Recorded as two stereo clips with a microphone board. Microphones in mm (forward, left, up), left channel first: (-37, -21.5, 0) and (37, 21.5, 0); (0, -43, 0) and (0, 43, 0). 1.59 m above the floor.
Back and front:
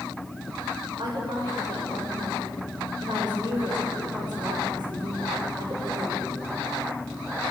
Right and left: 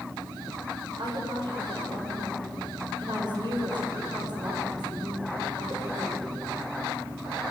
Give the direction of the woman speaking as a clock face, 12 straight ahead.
10 o'clock.